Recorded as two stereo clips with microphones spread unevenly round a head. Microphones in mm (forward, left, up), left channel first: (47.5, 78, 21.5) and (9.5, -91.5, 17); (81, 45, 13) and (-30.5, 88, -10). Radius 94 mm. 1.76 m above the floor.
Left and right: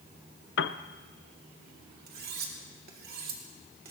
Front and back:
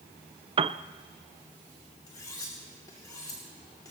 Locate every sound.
0.6 s a piano: 110° left, 0.5 m
2.1 s cutlery clinking: 80° right, 2 m